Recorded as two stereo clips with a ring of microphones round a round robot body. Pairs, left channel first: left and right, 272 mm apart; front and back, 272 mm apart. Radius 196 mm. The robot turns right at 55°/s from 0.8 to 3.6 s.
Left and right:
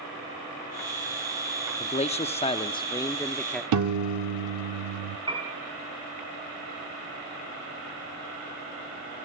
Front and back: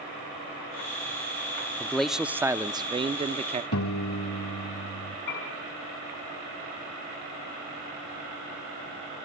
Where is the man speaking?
75° left, 0.6 m; by 3.6 s 175° left, 0.6 m.